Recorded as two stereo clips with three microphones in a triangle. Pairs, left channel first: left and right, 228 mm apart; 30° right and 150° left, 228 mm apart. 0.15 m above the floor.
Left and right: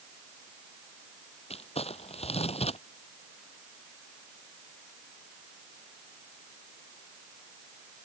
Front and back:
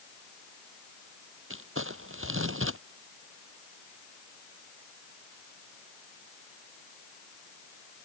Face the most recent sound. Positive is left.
turn(degrees=150)